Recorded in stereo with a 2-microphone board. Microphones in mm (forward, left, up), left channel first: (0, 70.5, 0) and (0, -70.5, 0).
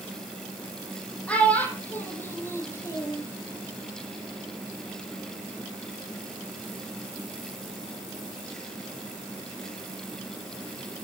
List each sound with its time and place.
1.3 s a child speaking: 10° left (ahead or behind), 7 m; by 3.2 s 25° left (ahead or behind), 6 m